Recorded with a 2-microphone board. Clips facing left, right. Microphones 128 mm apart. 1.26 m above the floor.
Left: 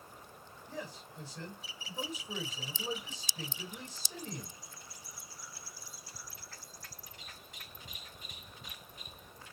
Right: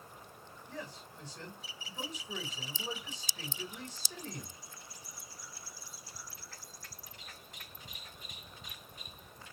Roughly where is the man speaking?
Centre.